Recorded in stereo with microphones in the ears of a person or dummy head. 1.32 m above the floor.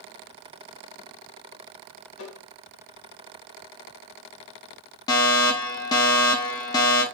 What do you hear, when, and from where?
2.2 s tapping: 75° left (ahead or behind), 1.6 m
5.1 s a fire alarm: 20° left (ahead or behind), 0.8 m